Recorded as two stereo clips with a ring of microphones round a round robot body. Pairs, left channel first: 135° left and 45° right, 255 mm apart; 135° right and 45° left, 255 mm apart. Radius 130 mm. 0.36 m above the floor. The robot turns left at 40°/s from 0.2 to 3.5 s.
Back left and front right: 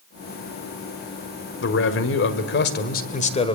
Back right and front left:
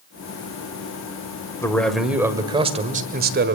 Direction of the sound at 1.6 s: 150° left.